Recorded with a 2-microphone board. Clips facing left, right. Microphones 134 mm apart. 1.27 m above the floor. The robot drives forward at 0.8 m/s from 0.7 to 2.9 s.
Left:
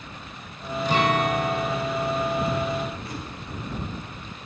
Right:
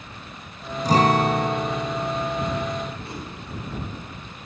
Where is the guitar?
40° right (ahead or behind), 0.6 m; by 3.2 s 15° right (ahead or behind), 1.7 m.